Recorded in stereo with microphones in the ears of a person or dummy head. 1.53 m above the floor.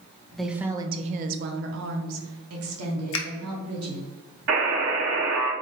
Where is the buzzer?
65° right (ahead or behind), 1.5 m.